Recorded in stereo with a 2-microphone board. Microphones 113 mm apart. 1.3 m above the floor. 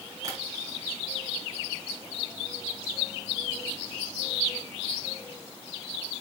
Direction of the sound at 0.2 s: 30° right (ahead or behind).